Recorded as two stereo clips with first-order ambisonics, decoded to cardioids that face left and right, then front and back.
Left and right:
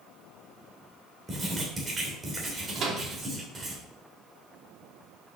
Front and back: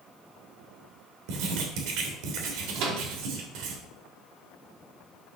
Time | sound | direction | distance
1.3 | writing | 165° right | 3 m
2.8 | a microwave | 150° right | 2.5 m